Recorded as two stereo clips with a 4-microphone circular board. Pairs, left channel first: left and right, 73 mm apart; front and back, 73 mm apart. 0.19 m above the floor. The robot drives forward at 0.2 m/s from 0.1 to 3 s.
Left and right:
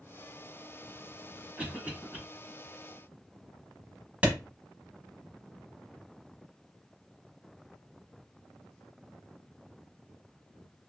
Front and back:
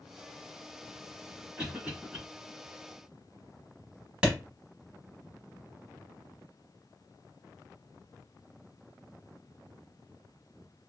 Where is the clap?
130° right, 1.0 m.